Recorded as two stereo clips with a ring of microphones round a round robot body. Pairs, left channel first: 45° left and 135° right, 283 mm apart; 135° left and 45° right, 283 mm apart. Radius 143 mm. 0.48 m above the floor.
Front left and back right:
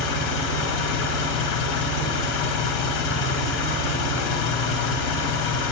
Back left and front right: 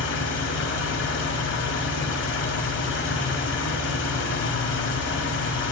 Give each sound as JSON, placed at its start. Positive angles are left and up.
{"t": 0.0, "sound": "an engine running", "azimuth_deg": 85, "distance_m": 1.2}